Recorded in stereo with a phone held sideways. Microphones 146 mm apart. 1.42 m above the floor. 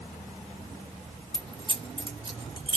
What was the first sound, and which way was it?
Keys jangling, 35° right (ahead or behind).